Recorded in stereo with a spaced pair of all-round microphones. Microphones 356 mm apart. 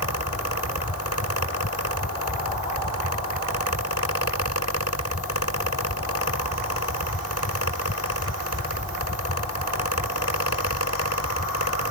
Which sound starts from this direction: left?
A fan, at 0.0 s.